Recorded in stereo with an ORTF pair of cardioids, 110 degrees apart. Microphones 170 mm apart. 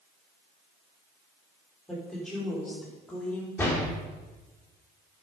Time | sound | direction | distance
1.9 | a woman speaking | straight ahead | 4 m
3.6 | a door slam | 15° left | 3.5 m